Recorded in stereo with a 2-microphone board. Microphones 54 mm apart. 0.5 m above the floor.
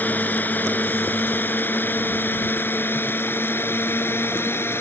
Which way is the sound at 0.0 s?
30° left (ahead or behind).